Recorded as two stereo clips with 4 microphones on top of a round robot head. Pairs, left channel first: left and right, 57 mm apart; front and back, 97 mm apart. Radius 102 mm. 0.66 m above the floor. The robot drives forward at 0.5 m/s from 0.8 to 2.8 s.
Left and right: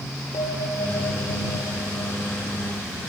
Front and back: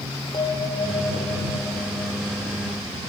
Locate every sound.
0.3 s a bell: 50° left, 2.5 m; by 2.1 s 60° left, 2.5 m